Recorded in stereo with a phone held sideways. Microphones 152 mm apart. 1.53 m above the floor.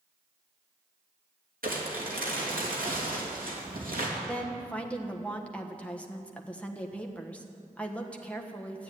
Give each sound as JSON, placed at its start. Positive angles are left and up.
{"t": 1.6, "sound": "crumpling", "side_deg": -85, "distance_m": 3.0}
{"t": 4.3, "sound": "a woman speaking", "side_deg": 10, "distance_m": 1.3}